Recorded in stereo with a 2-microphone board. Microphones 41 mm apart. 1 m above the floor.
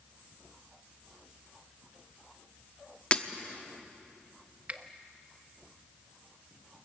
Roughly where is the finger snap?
Right.